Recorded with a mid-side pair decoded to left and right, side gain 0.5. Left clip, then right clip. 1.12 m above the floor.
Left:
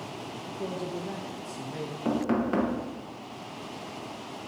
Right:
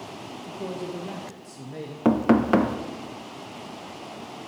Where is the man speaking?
5° right, 0.9 m.